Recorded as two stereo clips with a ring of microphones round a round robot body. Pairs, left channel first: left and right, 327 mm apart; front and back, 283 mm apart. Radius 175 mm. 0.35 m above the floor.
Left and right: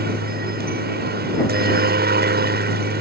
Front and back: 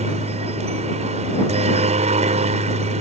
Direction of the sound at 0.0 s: 130° right.